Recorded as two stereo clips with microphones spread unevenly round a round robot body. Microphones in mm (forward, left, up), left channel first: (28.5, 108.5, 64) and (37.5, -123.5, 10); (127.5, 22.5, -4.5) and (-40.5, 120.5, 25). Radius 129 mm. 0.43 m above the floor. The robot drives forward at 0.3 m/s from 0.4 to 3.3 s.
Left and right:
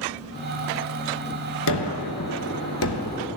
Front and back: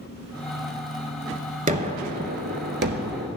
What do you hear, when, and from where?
1.7 s a gunshot: 100° left, 1.0 m; by 3.3 s 125° left, 1.2 m